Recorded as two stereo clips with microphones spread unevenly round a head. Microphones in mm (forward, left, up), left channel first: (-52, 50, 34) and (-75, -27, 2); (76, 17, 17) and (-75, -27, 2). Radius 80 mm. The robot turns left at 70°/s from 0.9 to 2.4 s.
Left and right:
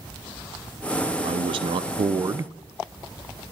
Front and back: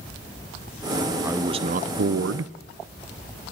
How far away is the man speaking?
About 0.5 m.